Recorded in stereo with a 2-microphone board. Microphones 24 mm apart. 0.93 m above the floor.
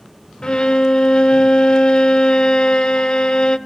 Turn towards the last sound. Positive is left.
turn(degrees=40)  # may be behind; listen again after turning